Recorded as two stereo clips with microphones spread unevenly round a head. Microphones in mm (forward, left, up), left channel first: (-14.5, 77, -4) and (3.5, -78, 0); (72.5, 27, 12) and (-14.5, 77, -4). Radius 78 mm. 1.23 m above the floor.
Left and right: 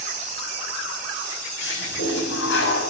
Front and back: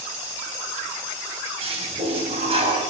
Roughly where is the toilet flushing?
Behind left.